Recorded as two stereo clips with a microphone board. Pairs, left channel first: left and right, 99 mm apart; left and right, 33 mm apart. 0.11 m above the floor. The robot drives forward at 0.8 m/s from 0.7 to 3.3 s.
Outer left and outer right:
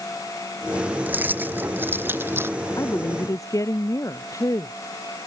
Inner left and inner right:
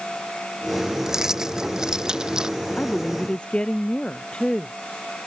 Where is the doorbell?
I don't hear a doorbell.